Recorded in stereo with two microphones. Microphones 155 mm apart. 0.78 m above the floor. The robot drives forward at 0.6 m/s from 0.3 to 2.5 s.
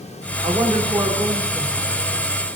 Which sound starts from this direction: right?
A woman speaking, at 0.4 s.